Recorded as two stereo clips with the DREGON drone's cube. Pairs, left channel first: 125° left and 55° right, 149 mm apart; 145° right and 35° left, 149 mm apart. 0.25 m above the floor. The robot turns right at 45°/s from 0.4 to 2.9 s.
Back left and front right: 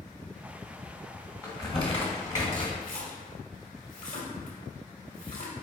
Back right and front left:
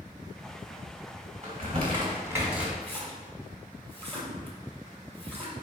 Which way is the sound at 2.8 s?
135° left.